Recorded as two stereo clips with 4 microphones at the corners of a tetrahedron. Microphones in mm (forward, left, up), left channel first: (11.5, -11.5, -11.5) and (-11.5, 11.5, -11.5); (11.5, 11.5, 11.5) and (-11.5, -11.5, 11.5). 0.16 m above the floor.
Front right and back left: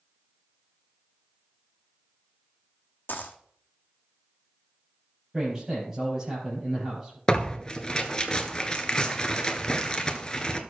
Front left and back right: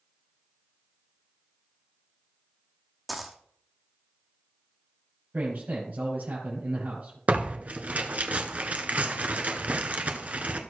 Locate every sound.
3.1 s a dropped coin: 45° right, 1.2 m
5.3 s a man speaking: 150° right, 5.5 m
7.3 s tearing paper: 105° right, 1.1 m